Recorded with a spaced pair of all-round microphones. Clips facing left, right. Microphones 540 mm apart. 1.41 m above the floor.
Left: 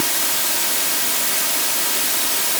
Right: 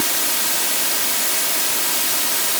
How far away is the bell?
No bell in this recording.